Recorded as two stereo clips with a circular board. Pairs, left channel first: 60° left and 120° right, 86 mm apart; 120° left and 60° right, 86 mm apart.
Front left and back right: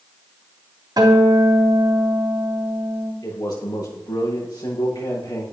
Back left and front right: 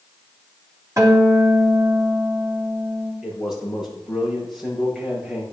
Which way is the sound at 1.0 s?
100° right.